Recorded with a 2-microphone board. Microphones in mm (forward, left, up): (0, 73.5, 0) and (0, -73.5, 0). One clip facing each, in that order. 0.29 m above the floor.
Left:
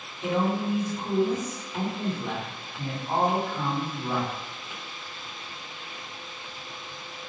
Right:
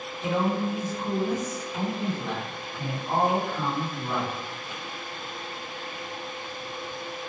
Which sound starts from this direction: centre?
A man speaking, at 0.2 s.